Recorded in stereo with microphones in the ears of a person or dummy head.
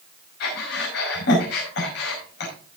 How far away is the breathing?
About 5 m.